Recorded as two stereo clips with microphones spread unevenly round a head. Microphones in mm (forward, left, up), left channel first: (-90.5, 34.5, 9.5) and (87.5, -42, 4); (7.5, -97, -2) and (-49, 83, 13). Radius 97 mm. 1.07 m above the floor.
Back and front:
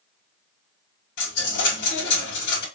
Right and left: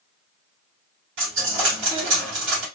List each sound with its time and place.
1.2 s a dropped coin: 130° left, 3 m